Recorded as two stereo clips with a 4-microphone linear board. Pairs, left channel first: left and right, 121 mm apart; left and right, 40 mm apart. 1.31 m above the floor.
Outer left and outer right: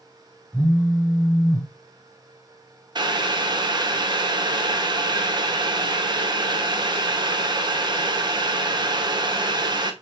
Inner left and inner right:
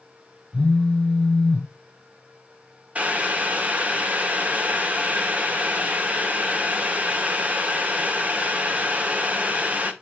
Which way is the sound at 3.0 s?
40° right (ahead or behind).